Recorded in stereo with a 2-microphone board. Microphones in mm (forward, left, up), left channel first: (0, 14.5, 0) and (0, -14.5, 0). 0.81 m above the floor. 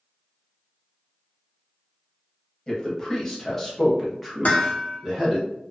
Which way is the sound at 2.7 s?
25° left (ahead or behind).